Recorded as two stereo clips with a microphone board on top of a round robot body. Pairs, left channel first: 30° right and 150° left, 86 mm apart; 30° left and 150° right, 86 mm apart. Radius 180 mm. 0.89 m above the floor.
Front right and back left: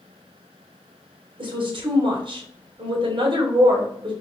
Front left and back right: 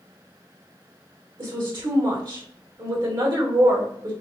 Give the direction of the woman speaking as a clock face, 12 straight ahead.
6 o'clock.